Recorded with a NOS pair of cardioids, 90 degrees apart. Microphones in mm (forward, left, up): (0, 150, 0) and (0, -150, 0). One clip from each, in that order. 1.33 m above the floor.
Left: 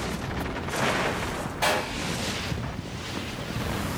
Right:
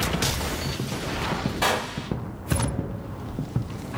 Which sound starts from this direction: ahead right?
A gunshot, at 1.6 s.